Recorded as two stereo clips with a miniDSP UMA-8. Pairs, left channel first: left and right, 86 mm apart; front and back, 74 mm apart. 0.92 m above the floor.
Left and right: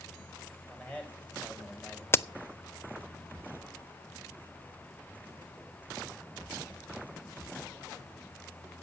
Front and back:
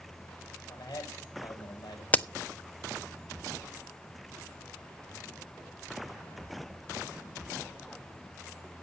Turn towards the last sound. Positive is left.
turn(degrees=50)